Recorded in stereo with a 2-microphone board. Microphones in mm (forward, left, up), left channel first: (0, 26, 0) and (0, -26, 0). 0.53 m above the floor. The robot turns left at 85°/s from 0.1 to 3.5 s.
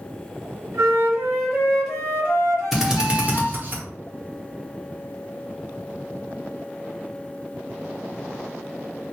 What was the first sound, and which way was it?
A flute, 90° right.